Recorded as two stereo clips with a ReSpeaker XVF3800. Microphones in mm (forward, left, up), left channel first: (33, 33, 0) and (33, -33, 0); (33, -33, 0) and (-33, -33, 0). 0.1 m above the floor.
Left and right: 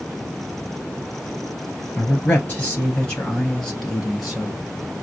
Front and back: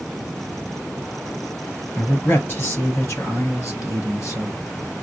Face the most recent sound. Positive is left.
turn(degrees=-5)